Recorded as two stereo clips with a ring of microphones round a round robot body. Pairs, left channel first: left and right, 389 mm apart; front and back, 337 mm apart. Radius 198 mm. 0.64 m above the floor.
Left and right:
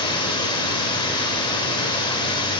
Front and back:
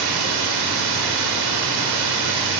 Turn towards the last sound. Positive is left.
turn(degrees=170)